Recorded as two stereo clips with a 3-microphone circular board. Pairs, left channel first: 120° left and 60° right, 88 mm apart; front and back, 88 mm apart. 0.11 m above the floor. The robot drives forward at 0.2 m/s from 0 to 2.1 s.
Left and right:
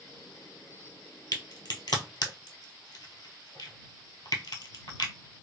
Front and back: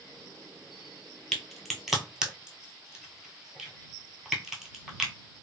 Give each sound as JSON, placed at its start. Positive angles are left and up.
{"t": 1.3, "sound": "a crack", "azimuth_deg": 85, "distance_m": 0.7}